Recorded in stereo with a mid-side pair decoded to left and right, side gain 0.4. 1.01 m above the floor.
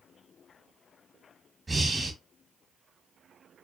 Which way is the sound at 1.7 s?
25° right.